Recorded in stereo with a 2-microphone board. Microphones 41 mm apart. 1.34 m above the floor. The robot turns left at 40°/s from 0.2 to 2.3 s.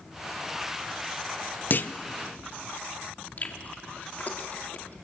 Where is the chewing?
45° left (ahead or behind), 2 m.